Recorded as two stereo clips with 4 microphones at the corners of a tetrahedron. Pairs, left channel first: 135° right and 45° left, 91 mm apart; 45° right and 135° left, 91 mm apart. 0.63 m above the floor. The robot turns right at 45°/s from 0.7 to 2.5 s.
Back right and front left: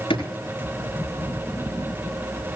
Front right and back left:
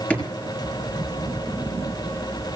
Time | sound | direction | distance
0.1 | a drawer | 120° right | 4 m